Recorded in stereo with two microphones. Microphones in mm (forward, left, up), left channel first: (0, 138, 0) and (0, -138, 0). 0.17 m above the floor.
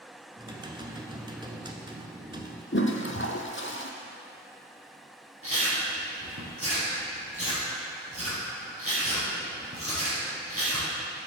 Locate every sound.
0.4 s typing on a keyboard: 15° right (ahead or behind), 0.9 m
2.7 s a toilet flushing: 45° left (ahead or behind), 1.0 m
5.4 s chewing: 55° right (ahead or behind), 3 m